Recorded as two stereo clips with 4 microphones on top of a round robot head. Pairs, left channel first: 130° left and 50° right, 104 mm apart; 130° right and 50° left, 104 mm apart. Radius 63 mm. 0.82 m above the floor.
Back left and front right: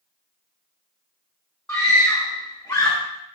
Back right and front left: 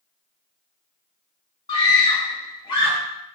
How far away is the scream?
About 2.5 m.